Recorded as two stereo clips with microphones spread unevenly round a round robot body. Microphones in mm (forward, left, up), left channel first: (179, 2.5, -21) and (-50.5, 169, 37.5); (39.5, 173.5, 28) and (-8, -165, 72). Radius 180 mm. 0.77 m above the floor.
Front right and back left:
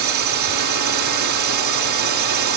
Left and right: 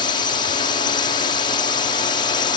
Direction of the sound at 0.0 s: 150° left.